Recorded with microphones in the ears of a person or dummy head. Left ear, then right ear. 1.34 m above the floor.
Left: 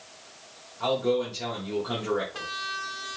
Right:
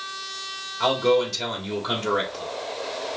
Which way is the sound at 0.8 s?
70° right (ahead or behind).